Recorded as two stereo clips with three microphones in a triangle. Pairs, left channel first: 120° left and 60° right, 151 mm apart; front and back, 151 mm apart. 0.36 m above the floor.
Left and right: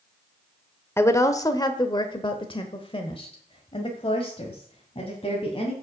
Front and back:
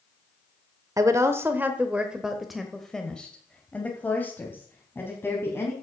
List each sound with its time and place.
1.0 s a woman speaking: 160° left, 1.0 m; by 5.7 s 70° left, 2.5 m